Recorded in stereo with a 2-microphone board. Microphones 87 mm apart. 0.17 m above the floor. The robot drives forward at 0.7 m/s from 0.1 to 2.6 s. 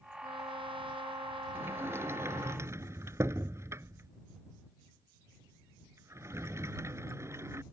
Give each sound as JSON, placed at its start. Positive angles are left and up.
{"t": 0.2, "sound": "a trumpet", "side_deg": -80}
{"t": 1.6, "sound": "a sliding door", "side_deg": -25}